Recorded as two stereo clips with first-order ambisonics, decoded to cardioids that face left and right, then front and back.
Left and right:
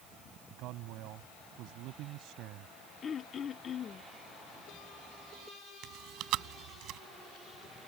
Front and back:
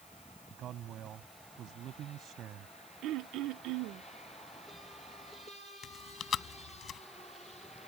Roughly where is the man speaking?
Behind right.